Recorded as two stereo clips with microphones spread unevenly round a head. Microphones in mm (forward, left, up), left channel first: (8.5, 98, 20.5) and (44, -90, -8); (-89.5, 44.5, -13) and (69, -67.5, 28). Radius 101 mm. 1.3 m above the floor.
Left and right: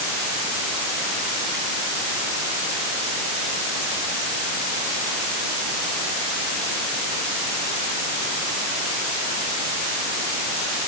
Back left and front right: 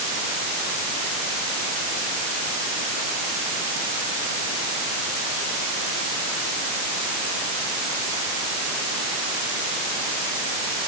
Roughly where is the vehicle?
No vehicle in this recording.